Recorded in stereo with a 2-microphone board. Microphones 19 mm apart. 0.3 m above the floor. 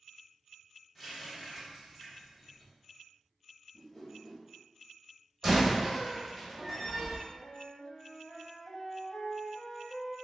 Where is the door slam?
20° right (ahead or behind), 1.0 m.